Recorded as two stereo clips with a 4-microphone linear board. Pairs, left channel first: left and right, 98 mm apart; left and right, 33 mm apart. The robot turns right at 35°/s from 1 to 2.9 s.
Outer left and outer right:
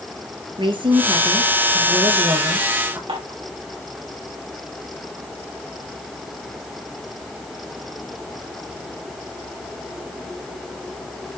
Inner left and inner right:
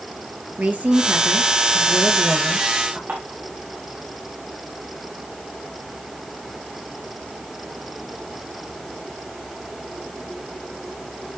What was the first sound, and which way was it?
A woman speaking, 105° right.